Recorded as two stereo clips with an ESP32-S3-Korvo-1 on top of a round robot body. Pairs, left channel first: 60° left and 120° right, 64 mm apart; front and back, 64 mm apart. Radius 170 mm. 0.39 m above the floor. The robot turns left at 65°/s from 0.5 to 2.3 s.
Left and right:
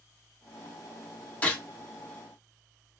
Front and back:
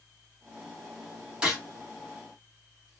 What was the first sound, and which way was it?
A gunshot, 110° left.